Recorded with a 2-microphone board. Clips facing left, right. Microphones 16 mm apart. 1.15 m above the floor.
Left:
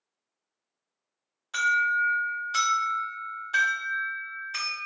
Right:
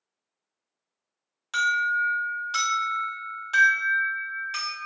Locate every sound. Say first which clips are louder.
1.5 s an alarm: even; 40° right (ahead or behind), 1.5 m